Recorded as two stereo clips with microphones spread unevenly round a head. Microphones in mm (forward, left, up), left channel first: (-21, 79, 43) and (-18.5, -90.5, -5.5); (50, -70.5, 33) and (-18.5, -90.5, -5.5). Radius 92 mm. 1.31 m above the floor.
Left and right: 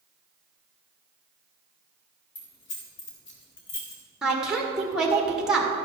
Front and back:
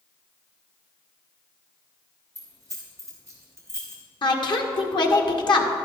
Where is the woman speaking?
5° right, 1.7 m.